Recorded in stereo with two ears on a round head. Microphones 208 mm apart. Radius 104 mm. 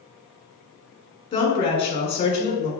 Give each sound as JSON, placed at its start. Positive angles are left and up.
{"t": 1.3, "sound": "a woman speaking", "side_deg": 20, "distance_m": 1.7}